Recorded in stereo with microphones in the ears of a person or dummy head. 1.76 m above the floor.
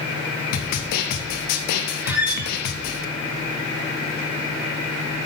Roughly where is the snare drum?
Left.